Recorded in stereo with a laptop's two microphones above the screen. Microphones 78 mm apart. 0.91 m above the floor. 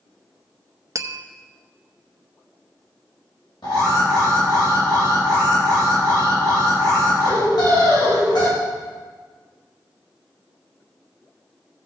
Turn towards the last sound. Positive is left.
turn(degrees=75)  # may be behind; listen again after turning